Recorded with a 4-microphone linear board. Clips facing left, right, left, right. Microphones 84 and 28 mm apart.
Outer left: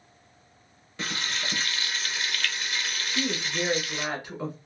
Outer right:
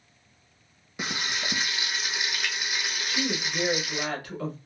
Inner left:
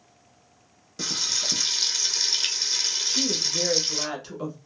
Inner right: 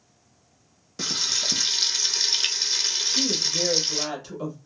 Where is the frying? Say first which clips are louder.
Outer right 1 dB, inner right 1 dB; 15° right (ahead or behind), 0.7 m.